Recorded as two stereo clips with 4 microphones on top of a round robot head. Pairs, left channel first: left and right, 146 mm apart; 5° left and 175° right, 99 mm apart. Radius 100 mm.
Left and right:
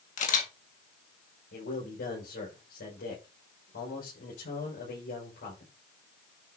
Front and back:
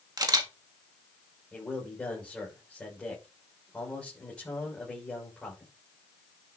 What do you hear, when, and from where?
0.2 s a camera shutter: 135° left, 1.8 m
1.5 s a man speaking: 85° left, 5 m